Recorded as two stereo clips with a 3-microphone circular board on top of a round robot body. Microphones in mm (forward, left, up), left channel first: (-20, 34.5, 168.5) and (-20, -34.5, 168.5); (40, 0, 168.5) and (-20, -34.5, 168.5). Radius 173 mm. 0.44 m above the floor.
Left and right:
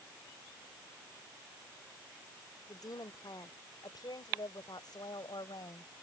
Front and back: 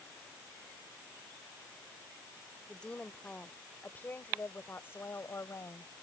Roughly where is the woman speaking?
Left.